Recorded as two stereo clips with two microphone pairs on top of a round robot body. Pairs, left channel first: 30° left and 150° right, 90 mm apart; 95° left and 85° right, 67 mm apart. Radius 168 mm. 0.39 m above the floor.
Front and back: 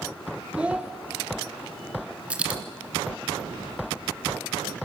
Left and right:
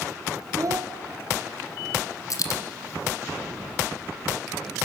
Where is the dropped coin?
130° left, 1.9 m.